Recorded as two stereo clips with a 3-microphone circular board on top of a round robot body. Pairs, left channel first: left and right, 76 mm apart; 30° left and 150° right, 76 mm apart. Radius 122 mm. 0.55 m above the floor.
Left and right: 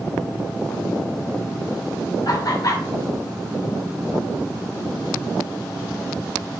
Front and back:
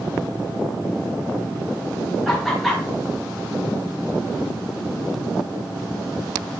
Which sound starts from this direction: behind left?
Laughter, at 2.2 s.